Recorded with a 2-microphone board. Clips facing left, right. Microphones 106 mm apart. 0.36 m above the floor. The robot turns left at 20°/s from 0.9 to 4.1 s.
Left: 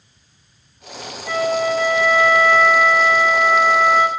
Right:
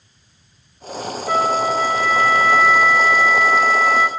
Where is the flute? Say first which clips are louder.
Even; 140° right, 1.2 m; by 4.1 s 165° left, 1.2 m.